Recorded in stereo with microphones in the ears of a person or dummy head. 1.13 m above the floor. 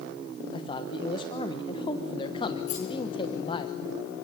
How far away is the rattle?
About 7.5 m.